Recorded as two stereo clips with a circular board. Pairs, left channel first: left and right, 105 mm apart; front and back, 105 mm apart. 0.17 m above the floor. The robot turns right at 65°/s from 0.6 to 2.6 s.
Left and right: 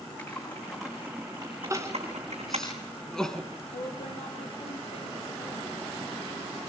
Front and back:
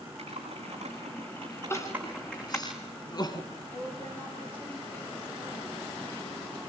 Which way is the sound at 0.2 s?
165° left.